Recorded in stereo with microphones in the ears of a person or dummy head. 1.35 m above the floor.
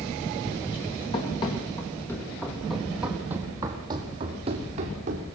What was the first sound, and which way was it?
Running footsteps, 30° left (ahead or behind).